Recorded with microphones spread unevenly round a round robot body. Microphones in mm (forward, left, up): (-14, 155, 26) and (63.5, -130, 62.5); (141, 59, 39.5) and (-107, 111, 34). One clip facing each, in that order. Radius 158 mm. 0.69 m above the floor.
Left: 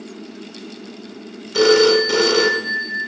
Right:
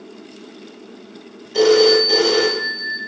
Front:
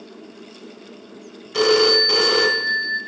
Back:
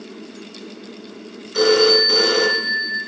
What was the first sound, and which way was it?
A phone ringing, 35° left.